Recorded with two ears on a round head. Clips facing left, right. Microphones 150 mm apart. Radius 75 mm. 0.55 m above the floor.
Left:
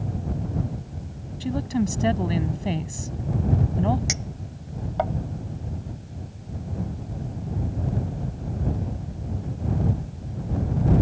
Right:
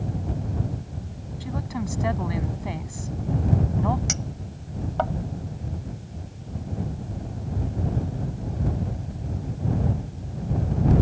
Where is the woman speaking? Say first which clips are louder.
Left 7 dB; 35° left (ahead or behind).